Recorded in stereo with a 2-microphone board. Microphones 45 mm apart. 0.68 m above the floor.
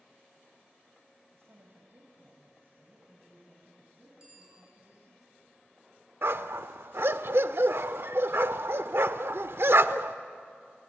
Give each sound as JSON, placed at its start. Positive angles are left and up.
{"t": 1.3, "sound": "a woman speaking", "side_deg": -65, "distance_m": 3.5}
{"t": 4.2, "sound": "a bicycle bell", "side_deg": -20, "distance_m": 9.5}
{"t": 6.2, "sound": "a dog barking", "side_deg": -60, "distance_m": 0.7}